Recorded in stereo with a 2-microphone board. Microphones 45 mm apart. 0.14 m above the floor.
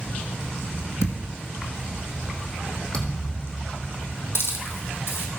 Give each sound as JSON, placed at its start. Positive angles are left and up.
{"t": 1.0, "sound": "a thud", "side_deg": 80, "distance_m": 1.8}
{"t": 2.9, "sound": "a thud", "side_deg": 20, "distance_m": 2.5}
{"t": 4.3, "sound": "a hiss", "side_deg": 70, "distance_m": 1.9}